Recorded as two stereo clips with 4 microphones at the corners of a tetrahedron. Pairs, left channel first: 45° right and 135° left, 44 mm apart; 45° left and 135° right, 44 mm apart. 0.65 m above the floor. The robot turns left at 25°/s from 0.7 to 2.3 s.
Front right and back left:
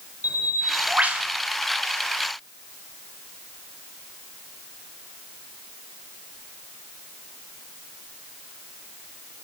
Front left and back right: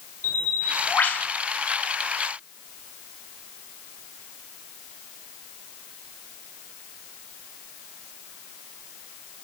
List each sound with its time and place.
0.2 s a bird: 95° left, 1.8 m; by 1.3 s 80° left, 1.8 m